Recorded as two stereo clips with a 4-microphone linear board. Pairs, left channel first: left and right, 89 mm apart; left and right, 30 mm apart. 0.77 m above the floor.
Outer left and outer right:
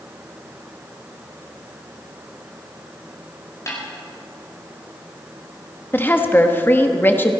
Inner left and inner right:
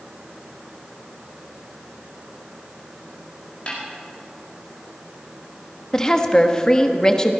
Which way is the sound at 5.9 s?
25° left (ahead or behind).